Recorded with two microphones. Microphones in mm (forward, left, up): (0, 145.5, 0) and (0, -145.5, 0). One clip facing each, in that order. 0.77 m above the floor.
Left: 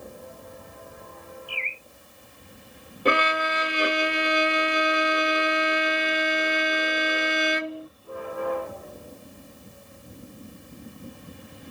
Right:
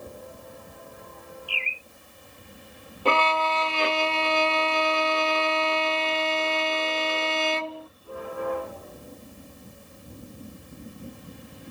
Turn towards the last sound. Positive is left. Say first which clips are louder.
# left 1 dB
turn(degrees=20)  # may be behind; listen again after turning